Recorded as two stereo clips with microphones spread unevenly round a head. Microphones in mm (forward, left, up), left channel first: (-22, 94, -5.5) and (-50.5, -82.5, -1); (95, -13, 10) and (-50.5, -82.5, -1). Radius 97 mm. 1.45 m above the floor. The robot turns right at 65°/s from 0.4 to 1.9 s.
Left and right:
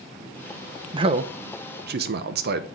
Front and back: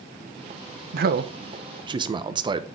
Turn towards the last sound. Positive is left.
turn(degrees=-95)